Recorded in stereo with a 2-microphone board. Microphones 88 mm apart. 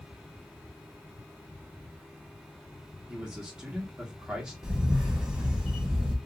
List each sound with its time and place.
3.1 s a man speaking: 10° right (ahead or behind), 0.9 m
4.6 s a camera shutter: 10° right (ahead or behind), 1.3 m